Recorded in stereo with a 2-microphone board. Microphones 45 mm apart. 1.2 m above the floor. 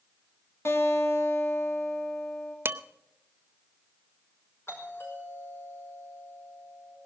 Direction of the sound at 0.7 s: 70° left (ahead or behind).